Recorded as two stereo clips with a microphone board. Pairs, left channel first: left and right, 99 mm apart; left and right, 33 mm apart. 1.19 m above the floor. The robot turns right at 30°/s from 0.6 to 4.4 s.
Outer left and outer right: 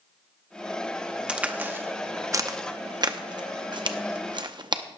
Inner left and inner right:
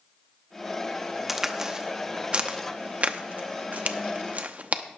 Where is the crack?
10° right (ahead or behind), 0.7 m; by 4.8 s 45° right (ahead or behind), 0.7 m.